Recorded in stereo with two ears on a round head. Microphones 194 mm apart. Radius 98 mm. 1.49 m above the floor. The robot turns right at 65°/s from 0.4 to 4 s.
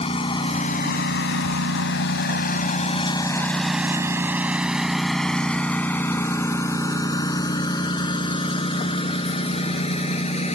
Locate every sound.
0.0 s a lawn mower: 25° left (ahead or behind); by 10.6 s 30° left (ahead or behind)